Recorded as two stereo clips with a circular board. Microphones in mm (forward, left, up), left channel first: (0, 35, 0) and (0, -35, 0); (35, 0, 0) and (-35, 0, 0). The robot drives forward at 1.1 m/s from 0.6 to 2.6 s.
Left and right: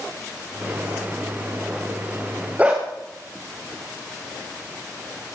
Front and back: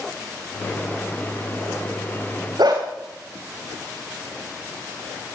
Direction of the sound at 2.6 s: 160° right.